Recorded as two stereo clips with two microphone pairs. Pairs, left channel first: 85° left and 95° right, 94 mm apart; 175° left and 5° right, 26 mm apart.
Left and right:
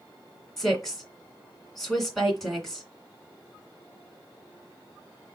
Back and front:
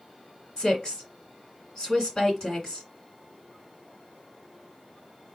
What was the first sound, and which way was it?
A woman speaking, 170° left.